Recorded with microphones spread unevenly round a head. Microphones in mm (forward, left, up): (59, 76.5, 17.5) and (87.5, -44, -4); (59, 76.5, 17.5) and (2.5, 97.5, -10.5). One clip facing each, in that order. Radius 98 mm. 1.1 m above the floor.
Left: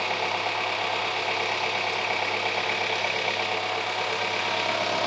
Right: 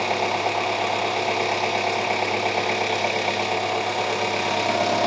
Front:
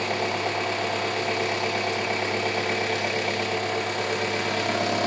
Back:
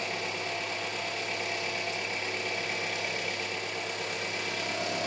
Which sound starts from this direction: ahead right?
An engine running, at 0.0 s.